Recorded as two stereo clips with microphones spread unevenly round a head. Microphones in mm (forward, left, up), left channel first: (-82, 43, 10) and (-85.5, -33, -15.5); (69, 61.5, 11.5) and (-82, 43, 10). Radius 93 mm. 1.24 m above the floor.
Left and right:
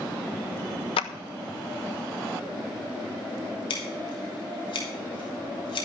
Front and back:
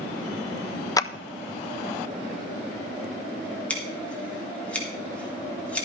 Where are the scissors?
90° left, 3.5 m.